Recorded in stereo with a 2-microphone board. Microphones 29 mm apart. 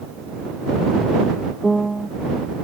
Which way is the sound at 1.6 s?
10° left (ahead or behind).